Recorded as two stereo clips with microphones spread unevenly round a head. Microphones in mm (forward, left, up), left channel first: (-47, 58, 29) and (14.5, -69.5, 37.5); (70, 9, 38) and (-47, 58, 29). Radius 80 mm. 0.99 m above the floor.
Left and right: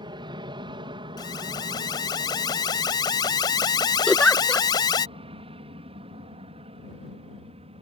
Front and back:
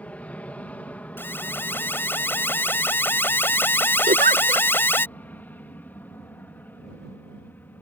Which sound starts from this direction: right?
An aircraft, at 0.0 s.